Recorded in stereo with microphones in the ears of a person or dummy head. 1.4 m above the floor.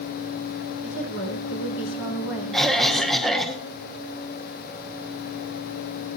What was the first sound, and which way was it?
A woman speaking, 70° left (ahead or behind).